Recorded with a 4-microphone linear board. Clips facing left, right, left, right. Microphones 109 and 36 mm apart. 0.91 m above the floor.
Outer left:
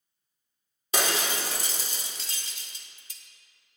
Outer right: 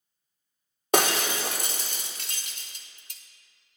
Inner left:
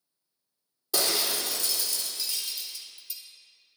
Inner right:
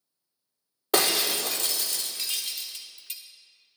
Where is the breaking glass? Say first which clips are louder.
Outer right 4 dB, inner right 4 dB; 55° right (ahead or behind), 0.8 m.